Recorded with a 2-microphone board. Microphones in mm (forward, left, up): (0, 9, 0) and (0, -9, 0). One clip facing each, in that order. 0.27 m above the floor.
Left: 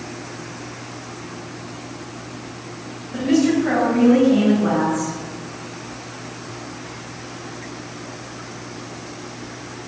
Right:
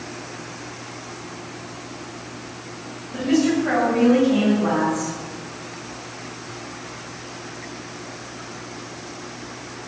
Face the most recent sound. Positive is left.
turn(degrees=-35)  # may be behind; listen again after turning